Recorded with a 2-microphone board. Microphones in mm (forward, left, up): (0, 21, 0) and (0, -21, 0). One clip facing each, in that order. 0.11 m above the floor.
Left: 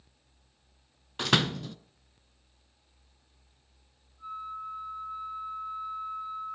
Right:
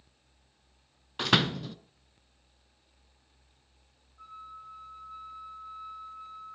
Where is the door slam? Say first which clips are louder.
Right 1 dB; 5° right (ahead or behind), 0.7 m.